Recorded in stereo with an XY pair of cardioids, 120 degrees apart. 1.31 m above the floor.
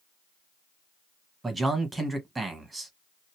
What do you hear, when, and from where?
1.4 s a man speaking: 20° right, 1.3 m